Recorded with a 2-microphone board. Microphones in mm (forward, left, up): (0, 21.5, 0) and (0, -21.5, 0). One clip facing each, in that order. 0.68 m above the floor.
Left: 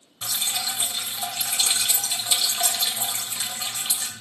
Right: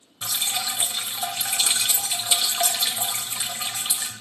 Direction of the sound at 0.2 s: 20° right (ahead or behind).